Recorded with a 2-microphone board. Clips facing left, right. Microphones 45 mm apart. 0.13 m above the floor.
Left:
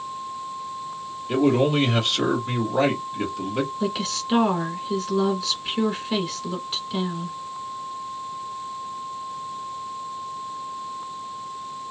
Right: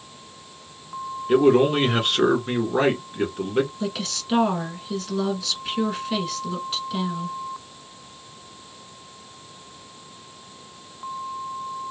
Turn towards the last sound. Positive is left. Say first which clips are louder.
# left 3 dB
turn(degrees=5)  # may be behind; listen again after turning